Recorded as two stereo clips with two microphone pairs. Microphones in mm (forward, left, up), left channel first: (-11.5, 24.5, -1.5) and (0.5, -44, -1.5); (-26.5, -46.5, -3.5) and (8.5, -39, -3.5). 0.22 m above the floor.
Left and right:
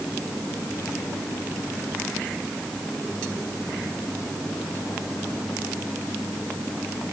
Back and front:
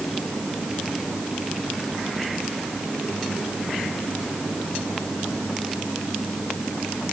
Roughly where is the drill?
I don't hear a drill.